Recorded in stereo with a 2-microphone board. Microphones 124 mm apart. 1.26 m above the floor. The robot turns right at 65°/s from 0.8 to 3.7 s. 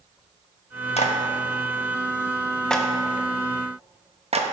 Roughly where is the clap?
Left.